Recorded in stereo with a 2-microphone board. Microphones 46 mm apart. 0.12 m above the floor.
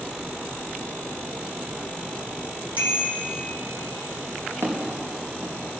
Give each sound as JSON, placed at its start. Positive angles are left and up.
{"t": 2.8, "sound": "a bicycle bell", "side_deg": -40, "distance_m": 3.0}
{"t": 4.6, "sound": "footsteps", "side_deg": -75, "distance_m": 4.0}